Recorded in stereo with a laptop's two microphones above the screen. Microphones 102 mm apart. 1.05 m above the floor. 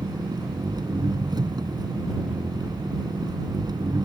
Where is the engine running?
45° right (ahead or behind).